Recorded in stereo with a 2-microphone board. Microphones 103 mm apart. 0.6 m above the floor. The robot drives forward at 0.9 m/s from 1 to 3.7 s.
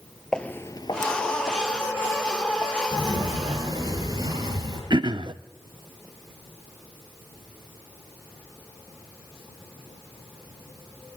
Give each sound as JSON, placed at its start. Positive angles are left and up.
{"t": 0.3, "sound": "footsteps", "side_deg": 5, "distance_m": 0.7}
{"t": 2.9, "sound": "a sliding door", "side_deg": -40, "distance_m": 4.0}
{"t": 4.9, "sound": "throat clearing", "side_deg": -45, "distance_m": 0.7}